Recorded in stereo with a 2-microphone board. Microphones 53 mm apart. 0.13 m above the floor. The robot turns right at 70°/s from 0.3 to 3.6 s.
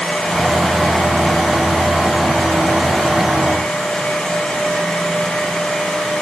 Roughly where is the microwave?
No microwave in this recording.